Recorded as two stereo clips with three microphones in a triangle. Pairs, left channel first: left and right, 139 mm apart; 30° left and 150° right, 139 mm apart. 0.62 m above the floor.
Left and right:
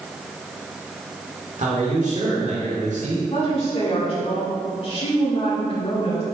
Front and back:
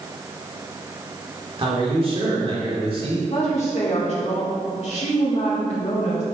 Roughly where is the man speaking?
Right.